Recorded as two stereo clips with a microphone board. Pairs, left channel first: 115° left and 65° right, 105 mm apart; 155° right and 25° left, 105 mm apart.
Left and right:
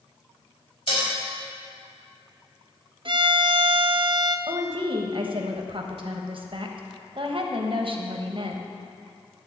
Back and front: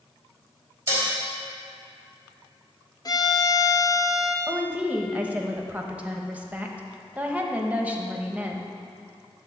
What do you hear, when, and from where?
0.9 s dishes clattering: 90° left, 3.5 m
3.0 s a violin: 105° right, 0.6 m
4.5 s a woman speaking: 50° right, 1.0 m